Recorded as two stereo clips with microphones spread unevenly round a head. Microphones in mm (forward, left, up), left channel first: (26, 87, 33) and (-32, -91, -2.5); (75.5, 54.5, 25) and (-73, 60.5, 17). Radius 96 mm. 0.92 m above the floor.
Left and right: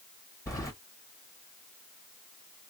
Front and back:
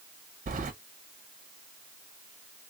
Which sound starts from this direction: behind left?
Keys jangling, at 0.5 s.